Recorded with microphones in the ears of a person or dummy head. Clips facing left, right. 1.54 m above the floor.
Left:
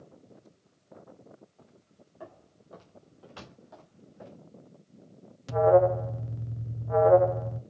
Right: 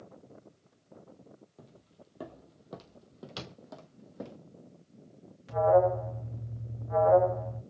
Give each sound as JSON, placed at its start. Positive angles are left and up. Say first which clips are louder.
{"t": 1.6, "sound": "footsteps", "louder": "right 3 dB", "side_deg": -40, "distance_m": 2.0}
{"t": 3.4, "sound": "a door slam", "louder": "right 3 dB", "side_deg": -50, "distance_m": 3.0}
{"t": 5.5, "sound": "an alarm", "louder": "left 3 dB", "side_deg": 55, "distance_m": 1.4}